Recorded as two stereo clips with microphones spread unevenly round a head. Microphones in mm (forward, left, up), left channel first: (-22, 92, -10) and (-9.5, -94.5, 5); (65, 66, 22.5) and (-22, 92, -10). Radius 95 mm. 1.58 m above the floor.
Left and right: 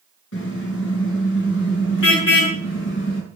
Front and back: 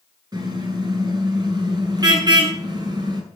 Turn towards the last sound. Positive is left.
turn(degrees=120)